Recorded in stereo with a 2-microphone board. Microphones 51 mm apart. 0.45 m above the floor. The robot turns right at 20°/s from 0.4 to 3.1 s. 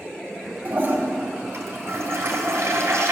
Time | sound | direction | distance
0.7 | a toilet flushing | 135° right | 3 m